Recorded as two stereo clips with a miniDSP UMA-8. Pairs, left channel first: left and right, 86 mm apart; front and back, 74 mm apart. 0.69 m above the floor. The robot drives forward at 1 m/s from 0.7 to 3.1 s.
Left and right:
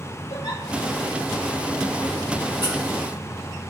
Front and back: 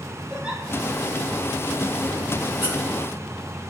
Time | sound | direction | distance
0.3 | a giggle | 100° left | 2 m
2.6 | a squeak | 120° left | 1.9 m